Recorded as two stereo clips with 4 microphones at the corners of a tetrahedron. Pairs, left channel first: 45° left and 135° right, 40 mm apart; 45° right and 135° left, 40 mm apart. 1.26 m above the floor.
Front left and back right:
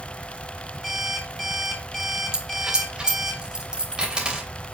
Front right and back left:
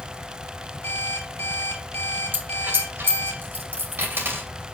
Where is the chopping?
No chopping in this recording.